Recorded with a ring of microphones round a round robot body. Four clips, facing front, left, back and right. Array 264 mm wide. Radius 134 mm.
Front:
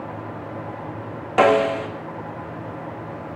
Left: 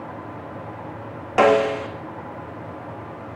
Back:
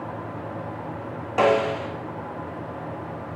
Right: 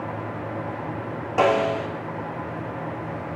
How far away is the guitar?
No guitar in this recording.